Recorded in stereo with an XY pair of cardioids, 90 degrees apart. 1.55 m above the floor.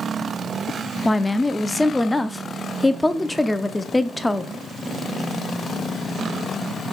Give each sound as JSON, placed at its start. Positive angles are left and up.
{"t": 1.1, "sound": "a woman speaking", "azimuth_deg": 15, "distance_m": 0.5}